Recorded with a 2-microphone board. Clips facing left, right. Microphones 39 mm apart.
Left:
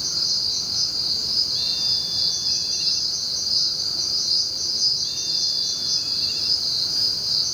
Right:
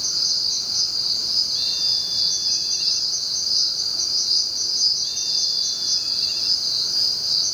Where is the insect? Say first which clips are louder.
Right 1 dB; 40° left (ahead or behind), 4 m.